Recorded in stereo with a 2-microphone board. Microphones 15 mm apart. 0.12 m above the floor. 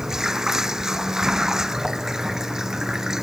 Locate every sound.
0.0 s running water: 35° right (ahead or behind)